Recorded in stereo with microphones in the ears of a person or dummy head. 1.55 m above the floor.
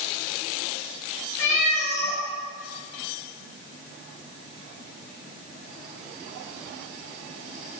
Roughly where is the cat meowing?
Left.